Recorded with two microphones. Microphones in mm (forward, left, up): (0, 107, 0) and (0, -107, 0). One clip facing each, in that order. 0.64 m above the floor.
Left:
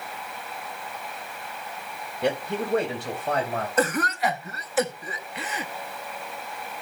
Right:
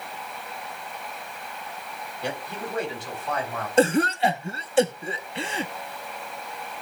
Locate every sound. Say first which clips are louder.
2.2 s a man speaking: left 7 dB; 70° left (ahead or behind), 3 m; by 3.7 s 75° left (ahead or behind), 4 m
3.8 s a cough: right 6 dB; 30° right (ahead or behind), 0.8 m